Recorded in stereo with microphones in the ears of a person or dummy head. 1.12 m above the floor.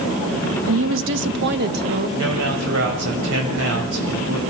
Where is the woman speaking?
65° right (ahead or behind), 1.4 m; by 2.1 s 50° right (ahead or behind), 1.9 m.